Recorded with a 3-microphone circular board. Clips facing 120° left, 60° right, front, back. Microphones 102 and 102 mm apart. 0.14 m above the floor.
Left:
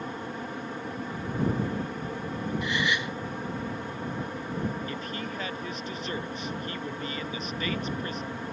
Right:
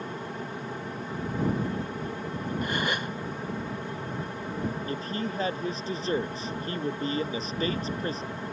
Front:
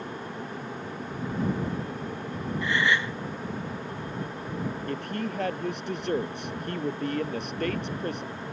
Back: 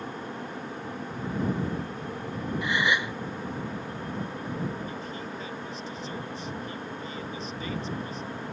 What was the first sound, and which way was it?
A gasp, 105° right.